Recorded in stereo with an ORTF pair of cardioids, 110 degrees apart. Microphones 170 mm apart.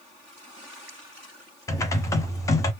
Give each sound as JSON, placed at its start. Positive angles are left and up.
{"t": 1.7, "sound": "typing on a keyboard", "azimuth_deg": 20, "distance_m": 0.8}